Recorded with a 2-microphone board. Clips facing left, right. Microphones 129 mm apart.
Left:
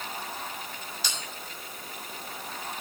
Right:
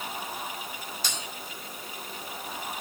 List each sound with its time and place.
1.0 s a bell: 50° right (ahead or behind), 5 m